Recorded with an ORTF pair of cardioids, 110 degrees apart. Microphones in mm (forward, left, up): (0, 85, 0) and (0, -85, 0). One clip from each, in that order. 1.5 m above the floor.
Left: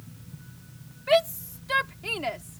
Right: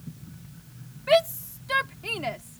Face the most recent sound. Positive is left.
turn(degrees=10)